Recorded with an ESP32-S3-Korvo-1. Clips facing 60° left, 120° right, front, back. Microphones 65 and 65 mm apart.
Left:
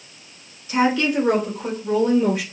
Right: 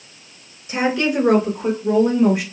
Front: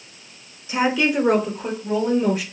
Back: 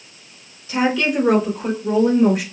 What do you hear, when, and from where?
0.7 s a woman speaking: 50° right, 1.3 m; by 2.4 s straight behind, 1.4 m